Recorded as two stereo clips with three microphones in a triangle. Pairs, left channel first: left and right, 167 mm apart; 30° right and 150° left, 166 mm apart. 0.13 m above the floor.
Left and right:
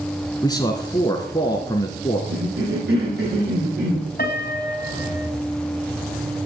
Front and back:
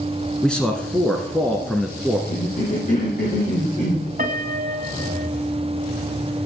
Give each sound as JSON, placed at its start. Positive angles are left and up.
{"t": 0.4, "sound": "a man speaking", "azimuth_deg": 50, "distance_m": 1.4}
{"t": 2.3, "sound": "a cough", "azimuth_deg": -70, "distance_m": 6.5}
{"t": 4.2, "sound": "a piano", "azimuth_deg": 115, "distance_m": 2.5}